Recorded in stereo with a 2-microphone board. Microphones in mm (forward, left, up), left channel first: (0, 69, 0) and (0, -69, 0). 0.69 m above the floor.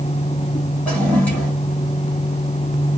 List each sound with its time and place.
0.9 s a toilet flushing: 10° left (ahead or behind), 1.9 m